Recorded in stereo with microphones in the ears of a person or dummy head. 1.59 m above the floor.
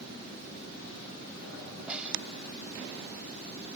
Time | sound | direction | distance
1.9 | a snare drum | 5° right (ahead or behind) | ?